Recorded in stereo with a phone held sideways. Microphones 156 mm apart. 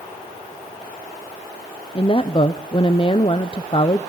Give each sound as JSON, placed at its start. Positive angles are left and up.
{"t": 1.9, "sound": "a woman speaking", "side_deg": 35, "distance_m": 0.6}